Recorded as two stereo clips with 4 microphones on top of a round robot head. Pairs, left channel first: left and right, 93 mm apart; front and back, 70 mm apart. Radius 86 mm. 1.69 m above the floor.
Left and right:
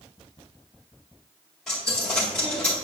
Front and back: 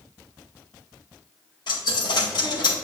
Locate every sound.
1.7 s a dropped coin: 5° left, 2 m